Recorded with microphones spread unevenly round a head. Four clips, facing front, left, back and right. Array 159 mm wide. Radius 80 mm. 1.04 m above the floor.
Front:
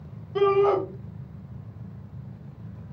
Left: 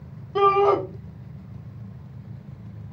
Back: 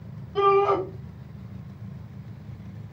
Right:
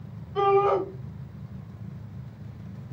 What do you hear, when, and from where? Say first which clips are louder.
0.3 s a shout: left 3 dB, even; 85° left, 1.2 m